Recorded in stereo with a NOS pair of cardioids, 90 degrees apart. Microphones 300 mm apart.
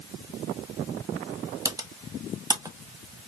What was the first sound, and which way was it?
Typing on a keyboard, 15° right.